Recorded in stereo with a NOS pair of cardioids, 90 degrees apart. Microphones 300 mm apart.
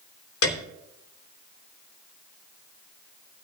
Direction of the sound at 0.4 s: 50° left.